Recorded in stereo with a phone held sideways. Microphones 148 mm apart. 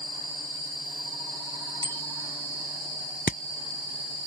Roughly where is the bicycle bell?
Right.